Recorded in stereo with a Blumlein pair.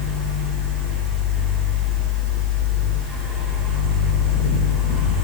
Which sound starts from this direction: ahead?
A fan, at 0.0 s.